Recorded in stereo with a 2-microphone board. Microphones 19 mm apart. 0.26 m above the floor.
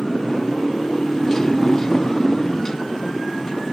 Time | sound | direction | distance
0.0 | a motorcycle | 15° left (ahead or behind) | ?